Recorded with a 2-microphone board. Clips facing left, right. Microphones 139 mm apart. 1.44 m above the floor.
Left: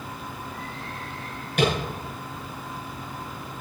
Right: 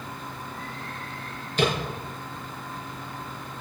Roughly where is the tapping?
Left.